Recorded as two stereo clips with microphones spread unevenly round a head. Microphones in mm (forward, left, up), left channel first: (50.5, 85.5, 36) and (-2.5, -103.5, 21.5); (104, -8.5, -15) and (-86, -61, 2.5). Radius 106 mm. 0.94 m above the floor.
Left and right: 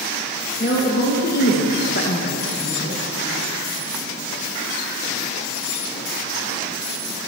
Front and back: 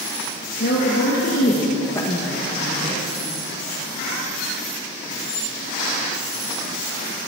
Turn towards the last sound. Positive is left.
turn(degrees=130)